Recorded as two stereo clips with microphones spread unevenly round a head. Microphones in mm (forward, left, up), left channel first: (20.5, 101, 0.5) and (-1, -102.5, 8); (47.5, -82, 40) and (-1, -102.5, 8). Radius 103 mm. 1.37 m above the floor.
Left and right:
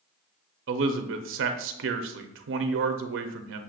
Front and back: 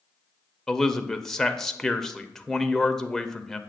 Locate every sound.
0.7 s a man speaking: 85° right, 0.6 m